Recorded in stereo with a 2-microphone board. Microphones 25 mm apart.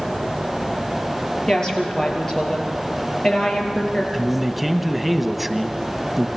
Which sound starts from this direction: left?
A woman speaking, at 1.5 s.